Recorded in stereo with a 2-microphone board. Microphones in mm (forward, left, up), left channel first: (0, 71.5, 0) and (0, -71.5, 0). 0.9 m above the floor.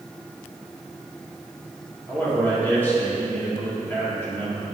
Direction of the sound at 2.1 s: 15° left (ahead or behind).